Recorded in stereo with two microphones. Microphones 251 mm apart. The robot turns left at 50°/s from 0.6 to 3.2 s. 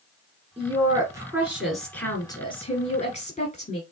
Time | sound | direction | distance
0.6 | a woman speaking | 20° right (ahead or behind) | 1.6 m